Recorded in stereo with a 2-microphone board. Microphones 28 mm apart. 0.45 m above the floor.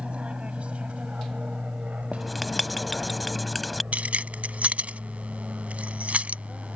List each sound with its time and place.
0.0 s an aircraft: 40° right (ahead or behind); by 6.8 s 35° right (ahead or behind)
2.1 s writing: centre (ahead or behind)
3.9 s keys jangling: 55° right (ahead or behind)